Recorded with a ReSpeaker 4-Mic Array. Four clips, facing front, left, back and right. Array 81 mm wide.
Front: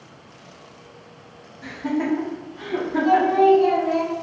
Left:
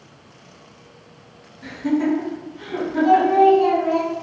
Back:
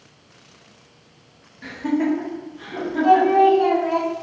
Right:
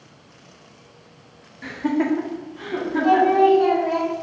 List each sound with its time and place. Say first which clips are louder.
1.6 s laughter: left 1 dB, back 3 dB; 115° right, 1.0 m; by 3.5 s 35° right, 1.8 m
3.0 s singing: left 2 dB, back 2 dB; 160° right, 0.9 m